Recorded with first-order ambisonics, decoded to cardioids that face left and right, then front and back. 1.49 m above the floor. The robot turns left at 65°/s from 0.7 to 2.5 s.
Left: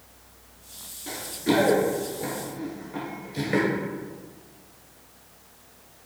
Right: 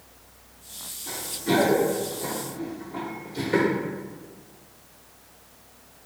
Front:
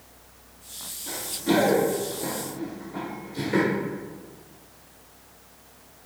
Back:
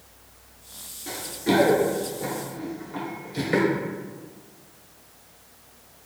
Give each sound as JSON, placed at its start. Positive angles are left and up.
{"t": 1.1, "sound": "running footsteps", "azimuth_deg": 150, "distance_m": 1.7}